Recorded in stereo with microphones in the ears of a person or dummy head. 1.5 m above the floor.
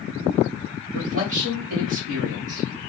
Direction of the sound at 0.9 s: 60° right (ahead or behind).